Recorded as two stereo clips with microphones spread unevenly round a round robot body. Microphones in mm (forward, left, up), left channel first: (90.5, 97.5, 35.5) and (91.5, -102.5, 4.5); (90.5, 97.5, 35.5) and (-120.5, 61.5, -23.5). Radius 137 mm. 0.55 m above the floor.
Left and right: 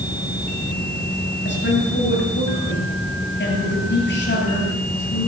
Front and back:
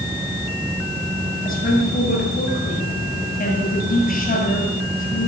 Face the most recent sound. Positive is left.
turn(degrees=60)